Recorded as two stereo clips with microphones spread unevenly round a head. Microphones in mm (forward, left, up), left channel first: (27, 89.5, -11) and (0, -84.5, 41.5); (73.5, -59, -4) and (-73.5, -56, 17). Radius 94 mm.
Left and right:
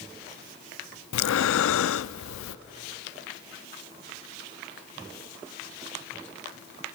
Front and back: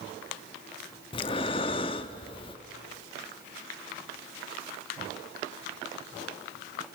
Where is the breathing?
65° left, 0.5 m.